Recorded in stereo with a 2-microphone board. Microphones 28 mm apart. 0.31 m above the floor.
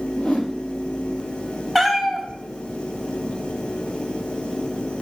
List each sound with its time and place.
0.2 s a whoosh: 55° left (ahead or behind), 2.0 m
1.8 s a cat meowing: 5° left (ahead or behind), 1.3 m